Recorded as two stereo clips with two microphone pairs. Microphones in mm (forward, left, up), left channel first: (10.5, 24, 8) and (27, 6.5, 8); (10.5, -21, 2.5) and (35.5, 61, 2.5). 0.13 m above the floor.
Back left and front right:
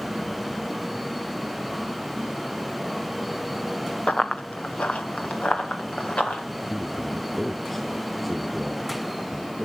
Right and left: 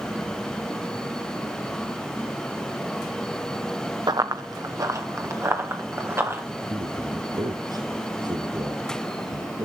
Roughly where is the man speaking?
Ahead left.